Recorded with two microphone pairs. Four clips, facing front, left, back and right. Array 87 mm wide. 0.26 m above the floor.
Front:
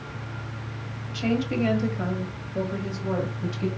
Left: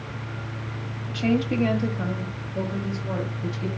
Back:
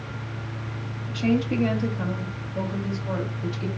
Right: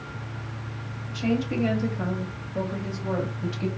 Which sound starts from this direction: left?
A woman speaking, at 1.1 s.